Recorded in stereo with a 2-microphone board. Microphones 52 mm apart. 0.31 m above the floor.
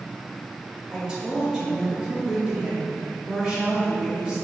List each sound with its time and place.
0.9 s a woman speaking: 15° right (ahead or behind), 1.0 m